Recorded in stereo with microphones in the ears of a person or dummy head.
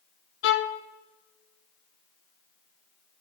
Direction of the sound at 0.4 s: 55° left (ahead or behind).